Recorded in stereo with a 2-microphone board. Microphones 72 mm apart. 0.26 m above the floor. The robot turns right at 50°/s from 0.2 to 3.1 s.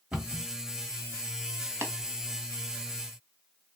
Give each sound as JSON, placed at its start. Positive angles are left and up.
{"t": 0.1, "sound": "a cupboard door", "side_deg": -15, "distance_m": 1.2}
{"t": 1.8, "sound": "tapping", "side_deg": -35, "distance_m": 0.7}